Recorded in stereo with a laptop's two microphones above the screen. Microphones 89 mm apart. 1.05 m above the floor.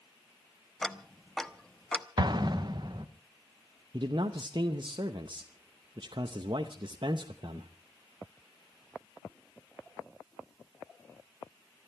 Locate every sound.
0.8 s ticking: 5° left (ahead or behind), 0.9 m
2.2 s an explosion: 50° right (ahead or behind), 0.9 m
3.9 s a man speaking: 60° right (ahead or behind), 0.8 m